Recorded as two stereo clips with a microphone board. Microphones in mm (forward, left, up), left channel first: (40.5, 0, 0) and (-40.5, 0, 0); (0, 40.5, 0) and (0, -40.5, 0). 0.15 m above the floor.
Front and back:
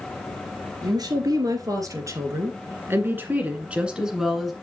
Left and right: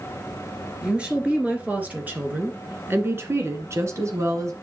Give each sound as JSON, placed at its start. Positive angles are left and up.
{"t": 0.8, "sound": "a woman speaking", "azimuth_deg": -165, "distance_m": 2.5}